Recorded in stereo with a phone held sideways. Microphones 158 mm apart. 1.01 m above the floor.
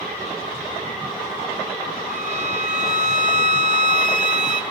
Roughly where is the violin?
Right.